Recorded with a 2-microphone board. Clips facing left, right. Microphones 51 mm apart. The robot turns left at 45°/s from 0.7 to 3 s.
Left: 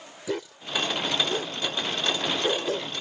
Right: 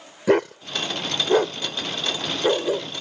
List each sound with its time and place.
0.3 s a dog barking: 65° right (ahead or behind); by 2.9 s 10° right (ahead or behind)